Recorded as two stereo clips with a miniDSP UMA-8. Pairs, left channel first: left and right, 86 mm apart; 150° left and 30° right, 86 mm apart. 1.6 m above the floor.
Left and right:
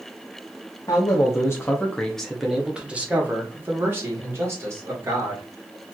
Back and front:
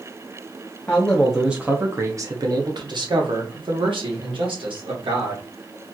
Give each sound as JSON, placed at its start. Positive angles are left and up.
{"t": 0.9, "sound": "a man speaking", "azimuth_deg": 80, "distance_m": 0.8}